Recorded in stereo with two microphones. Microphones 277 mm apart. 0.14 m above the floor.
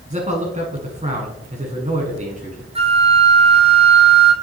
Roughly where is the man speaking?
Right.